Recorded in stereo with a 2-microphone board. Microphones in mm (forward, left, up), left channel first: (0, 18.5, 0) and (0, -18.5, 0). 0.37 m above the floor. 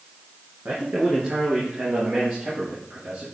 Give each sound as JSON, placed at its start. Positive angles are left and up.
{"t": 0.7, "sound": "a man speaking", "side_deg": -60, "distance_m": 4.0}